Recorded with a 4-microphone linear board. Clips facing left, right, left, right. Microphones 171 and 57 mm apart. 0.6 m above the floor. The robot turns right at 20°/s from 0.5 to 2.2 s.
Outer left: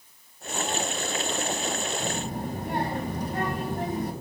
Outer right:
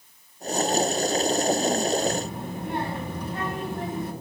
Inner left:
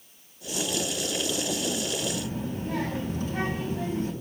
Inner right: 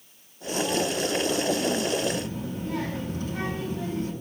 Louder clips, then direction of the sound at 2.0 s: Outer right 4 dB, inner right 2 dB; 45° left (ahead or behind).